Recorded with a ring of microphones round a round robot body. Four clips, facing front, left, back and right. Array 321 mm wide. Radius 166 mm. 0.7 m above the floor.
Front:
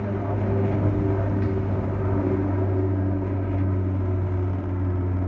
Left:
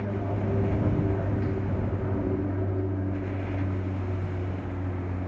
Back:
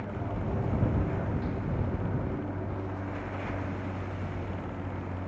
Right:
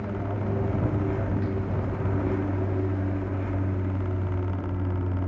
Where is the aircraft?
10° left; by 5.3 s 15° right.